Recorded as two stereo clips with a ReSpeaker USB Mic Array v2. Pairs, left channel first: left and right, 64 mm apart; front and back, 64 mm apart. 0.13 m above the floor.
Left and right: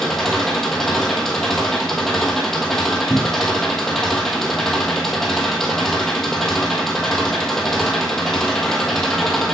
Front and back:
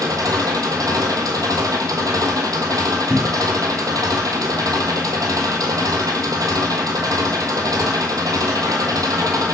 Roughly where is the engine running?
Behind.